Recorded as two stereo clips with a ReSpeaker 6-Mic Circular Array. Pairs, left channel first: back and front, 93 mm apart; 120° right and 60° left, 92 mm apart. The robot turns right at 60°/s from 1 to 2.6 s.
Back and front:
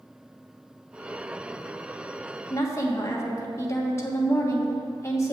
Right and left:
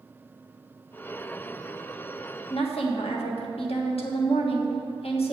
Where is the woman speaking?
125° right, 1.3 m; by 5.3 s 120° right, 1.3 m.